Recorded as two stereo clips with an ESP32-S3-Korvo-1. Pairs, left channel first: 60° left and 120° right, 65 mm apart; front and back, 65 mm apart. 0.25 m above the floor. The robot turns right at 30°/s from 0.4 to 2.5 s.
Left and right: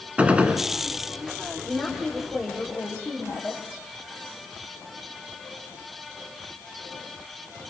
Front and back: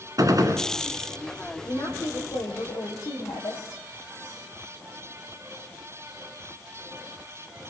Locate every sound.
0.2 s a gunshot: 170° left, 1.8 m; by 0.7 s straight behind, 1.8 m
1.6 s a woman speaking: 50° right, 9 m; by 3.6 s 25° right, 9 m